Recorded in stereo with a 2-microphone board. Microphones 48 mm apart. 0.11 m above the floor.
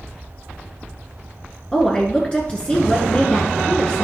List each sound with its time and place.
1.7 s a woman speaking: 20° left (ahead or behind), 1.3 m